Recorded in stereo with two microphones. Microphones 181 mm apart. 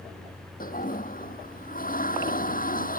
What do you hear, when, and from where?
0.6 s a toilet flushing: 50° left (ahead or behind)